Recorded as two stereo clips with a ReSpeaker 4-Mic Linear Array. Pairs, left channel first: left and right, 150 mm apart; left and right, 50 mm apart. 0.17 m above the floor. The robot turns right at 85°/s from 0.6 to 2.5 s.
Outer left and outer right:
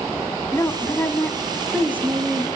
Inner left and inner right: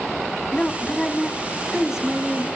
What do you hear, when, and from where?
0.5 s a woman speaking: 20° left (ahead or behind), 1.1 m; by 2.5 s 20° right (ahead or behind), 1.1 m